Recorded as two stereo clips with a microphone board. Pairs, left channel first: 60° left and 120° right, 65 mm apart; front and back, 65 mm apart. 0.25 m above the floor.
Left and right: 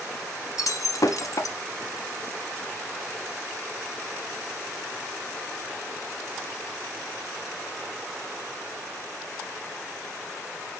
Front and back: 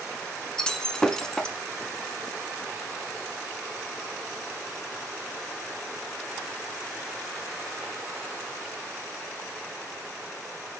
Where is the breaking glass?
80° left, 0.8 m.